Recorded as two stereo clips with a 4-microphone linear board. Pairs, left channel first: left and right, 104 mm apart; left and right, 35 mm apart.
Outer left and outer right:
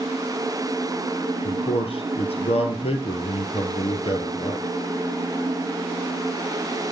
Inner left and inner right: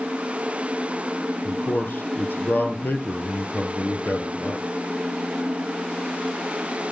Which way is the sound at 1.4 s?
60° left (ahead or behind).